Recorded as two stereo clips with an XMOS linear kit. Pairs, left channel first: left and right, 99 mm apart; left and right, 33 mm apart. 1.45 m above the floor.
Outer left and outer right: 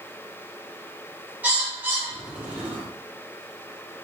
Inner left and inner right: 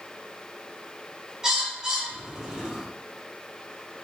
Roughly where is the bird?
Centre.